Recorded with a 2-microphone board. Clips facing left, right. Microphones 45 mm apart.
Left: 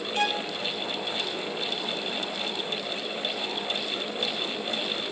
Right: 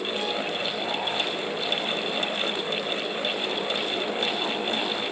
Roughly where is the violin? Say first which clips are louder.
Left 5 dB; left.